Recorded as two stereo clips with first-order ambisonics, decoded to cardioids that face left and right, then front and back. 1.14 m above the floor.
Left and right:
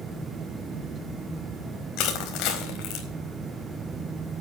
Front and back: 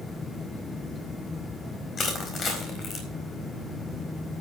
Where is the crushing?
60° left, 4 m.